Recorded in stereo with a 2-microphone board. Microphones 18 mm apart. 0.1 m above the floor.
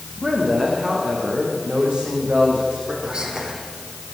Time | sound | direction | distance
0.2 | a woman speaking | 55° right (ahead or behind) | 7 m
3.0 | whispering | 50° right (ahead or behind) | 5 m